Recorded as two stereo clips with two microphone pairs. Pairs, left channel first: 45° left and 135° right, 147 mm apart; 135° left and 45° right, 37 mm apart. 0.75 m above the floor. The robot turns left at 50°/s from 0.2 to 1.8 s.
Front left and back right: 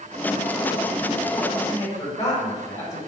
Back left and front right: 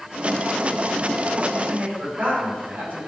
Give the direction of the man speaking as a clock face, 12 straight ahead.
12 o'clock.